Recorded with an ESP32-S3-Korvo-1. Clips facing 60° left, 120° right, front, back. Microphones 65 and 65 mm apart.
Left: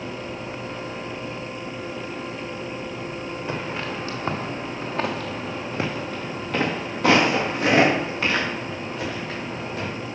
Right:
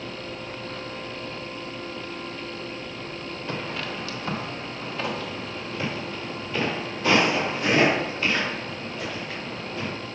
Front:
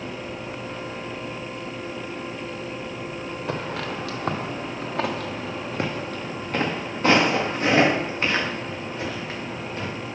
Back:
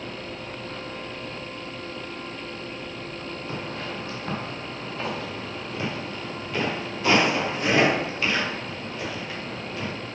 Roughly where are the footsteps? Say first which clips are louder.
Left 1 dB, front 5 dB; ahead.